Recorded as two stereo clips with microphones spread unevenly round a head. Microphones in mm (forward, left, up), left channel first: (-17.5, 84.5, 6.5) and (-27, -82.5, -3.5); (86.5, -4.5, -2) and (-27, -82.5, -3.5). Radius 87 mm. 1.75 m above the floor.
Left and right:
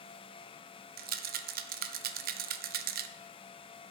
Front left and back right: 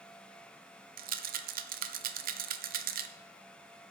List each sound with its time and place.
1.0 s a rattle: 130° right, 0.6 m